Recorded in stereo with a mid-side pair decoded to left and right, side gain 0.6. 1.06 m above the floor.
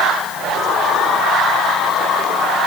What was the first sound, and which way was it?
Only background noise.